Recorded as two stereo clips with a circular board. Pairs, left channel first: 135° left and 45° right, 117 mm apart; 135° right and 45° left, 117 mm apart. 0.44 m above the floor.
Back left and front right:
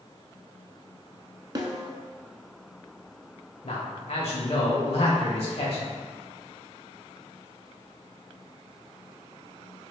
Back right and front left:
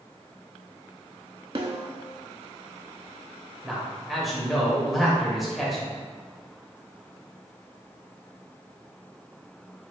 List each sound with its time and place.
1.6 s a snare drum: 5° left, 0.7 m
3.6 s a man speaking: 135° left, 1.4 m